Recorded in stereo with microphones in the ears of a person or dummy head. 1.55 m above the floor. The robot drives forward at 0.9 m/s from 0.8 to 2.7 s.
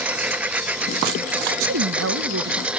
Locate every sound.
0.0 s a lawn mower: 5° right (ahead or behind)
1.5 s a woman speaking: 70° right (ahead or behind); by 2.7 s 55° right (ahead or behind)